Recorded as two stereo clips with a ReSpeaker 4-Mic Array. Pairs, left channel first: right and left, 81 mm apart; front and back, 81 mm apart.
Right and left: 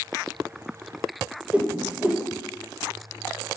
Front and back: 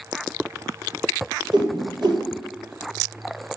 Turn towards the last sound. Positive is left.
turn(degrees=160)